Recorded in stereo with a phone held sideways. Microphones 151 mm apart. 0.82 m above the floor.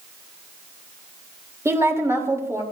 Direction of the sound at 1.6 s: 20° right (ahead or behind).